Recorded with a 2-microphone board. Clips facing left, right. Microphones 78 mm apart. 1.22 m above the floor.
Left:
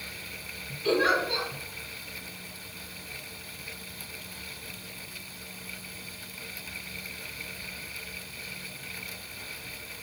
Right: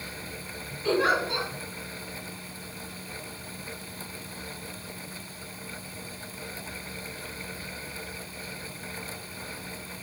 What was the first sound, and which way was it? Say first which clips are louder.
A giggle: even; 10° right (ahead or behind).